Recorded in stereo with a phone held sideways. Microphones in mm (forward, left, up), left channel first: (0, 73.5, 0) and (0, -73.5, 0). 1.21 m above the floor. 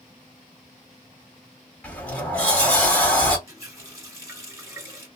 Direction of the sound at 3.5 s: 20° right (ahead or behind).